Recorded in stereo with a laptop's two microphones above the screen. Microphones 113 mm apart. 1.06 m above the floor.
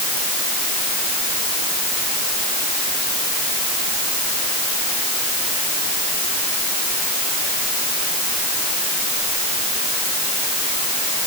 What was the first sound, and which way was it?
Only background noise.